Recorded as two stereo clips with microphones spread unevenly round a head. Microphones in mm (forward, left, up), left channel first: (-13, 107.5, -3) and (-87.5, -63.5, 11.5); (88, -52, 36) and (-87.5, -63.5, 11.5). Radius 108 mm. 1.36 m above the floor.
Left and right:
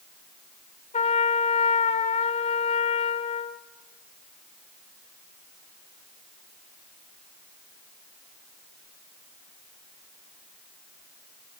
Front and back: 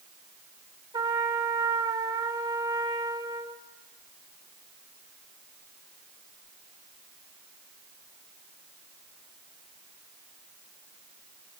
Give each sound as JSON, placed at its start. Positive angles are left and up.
{"t": 0.9, "sound": "a trumpet", "azimuth_deg": 110, "distance_m": 1.3}